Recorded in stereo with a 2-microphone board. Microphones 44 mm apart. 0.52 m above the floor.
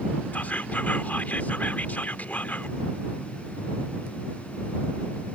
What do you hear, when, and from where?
0.3 s whispering: 40° left (ahead or behind)